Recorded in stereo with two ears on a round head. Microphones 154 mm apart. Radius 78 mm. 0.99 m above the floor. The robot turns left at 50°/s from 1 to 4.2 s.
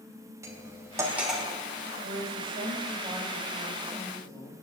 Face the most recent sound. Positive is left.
turn(degrees=150)